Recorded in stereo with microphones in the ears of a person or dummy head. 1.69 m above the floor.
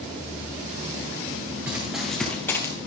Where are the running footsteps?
10° right (ahead or behind), 1.7 m; by 2.7 s 20° left (ahead or behind), 2 m.